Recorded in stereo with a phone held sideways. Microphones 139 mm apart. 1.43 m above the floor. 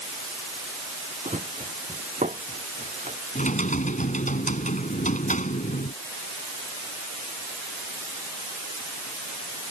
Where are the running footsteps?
65° right (ahead or behind).